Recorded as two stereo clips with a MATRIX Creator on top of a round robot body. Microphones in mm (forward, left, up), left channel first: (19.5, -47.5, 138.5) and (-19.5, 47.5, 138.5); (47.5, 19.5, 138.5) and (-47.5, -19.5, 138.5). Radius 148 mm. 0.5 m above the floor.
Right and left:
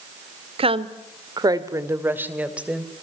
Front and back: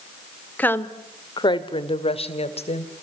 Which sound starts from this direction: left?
A woman speaking, at 0.6 s.